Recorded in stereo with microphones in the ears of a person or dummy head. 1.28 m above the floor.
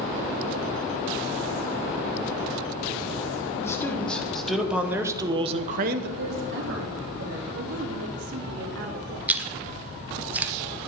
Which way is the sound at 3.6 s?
15° left (ahead or behind).